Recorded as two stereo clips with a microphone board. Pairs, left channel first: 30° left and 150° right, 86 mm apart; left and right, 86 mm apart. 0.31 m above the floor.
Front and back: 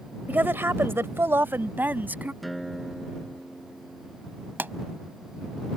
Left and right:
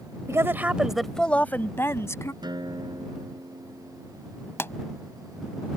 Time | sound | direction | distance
0.3 | a woman speaking | 100° right | ?
2.4 | a guitar | 60° right | ?
4.6 | a pop | 145° left | ?